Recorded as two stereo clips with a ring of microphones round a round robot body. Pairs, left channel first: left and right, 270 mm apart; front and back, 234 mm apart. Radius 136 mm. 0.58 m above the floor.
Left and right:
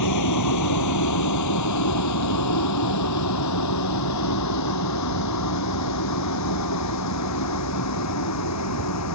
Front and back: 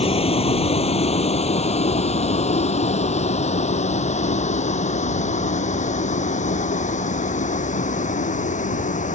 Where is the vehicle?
65° left; by 9.2 s 60° left.